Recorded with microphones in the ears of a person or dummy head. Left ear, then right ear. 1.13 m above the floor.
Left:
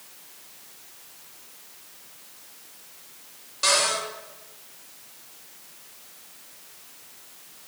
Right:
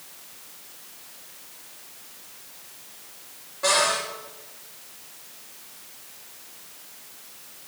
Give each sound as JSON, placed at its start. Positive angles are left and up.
{"t": 3.6, "sound": "a cupboard door", "side_deg": 70, "distance_m": 3.5}